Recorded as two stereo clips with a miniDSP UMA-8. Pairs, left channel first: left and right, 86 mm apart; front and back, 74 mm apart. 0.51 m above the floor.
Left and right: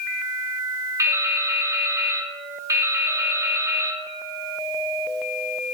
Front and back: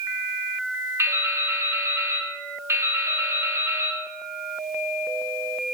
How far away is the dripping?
About 2.5 m.